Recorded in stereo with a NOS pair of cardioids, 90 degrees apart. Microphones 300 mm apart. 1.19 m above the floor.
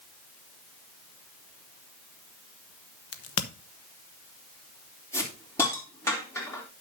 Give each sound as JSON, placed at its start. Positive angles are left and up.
{"t": 3.1, "sound": "a crack", "azimuth_deg": 55, "distance_m": 1.2}
{"t": 5.1, "sound": "a hiss", "azimuth_deg": 10, "distance_m": 3.5}